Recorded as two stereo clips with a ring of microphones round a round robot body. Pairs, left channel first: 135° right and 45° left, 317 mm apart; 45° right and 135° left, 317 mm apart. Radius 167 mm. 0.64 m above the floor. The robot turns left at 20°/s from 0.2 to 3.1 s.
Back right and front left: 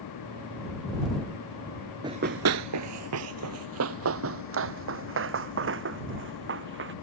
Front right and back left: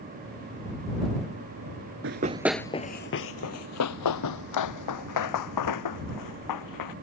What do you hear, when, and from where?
2.0 s running footsteps: 115° left; by 6.9 s 10° right